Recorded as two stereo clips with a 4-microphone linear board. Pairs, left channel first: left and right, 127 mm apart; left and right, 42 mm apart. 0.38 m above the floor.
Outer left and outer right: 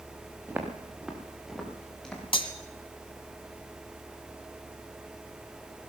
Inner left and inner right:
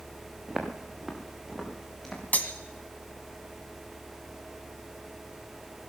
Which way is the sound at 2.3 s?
45° left (ahead or behind).